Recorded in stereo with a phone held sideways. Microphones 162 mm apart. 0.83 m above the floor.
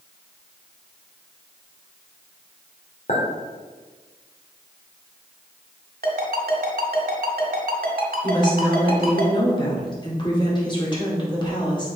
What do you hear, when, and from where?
3.1 s a clink: 50° left (ahead or behind), 2.0 m
6.0 s a ringtone: 65° right (ahead or behind), 1.7 m
8.2 s a woman speaking: 30° left (ahead or behind), 2 m